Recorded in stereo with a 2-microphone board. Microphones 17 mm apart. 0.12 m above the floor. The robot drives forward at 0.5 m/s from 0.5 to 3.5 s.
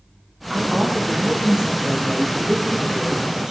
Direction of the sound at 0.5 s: 40° right (ahead or behind).